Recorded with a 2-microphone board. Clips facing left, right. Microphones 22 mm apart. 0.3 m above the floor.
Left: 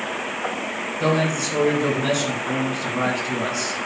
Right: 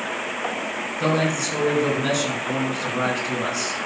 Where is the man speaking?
5° right (ahead or behind), 3.5 m.